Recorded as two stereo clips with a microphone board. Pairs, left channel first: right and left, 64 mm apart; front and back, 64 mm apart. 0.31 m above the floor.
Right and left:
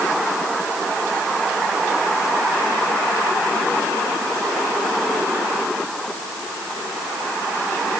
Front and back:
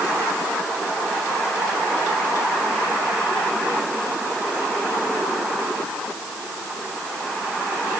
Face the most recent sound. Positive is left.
No sound to turn to.